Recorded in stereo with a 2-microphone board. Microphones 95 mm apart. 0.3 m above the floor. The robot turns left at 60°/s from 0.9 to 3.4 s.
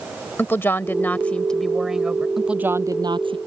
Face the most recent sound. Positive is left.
turn(degrees=-65)